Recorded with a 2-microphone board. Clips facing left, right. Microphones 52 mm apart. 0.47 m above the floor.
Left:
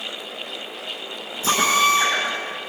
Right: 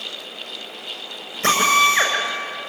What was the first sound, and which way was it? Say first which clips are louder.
A drill: right 2 dB; 55° right (ahead or behind).